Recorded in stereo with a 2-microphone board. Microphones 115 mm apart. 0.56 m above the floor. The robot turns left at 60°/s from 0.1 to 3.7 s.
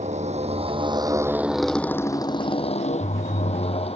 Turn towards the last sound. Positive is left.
turn(degrees=60)  # may be behind; listen again after turning